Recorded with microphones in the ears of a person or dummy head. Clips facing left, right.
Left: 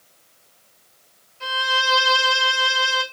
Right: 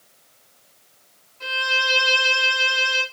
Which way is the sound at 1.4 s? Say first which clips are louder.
Left 2 dB; 5° left (ahead or behind).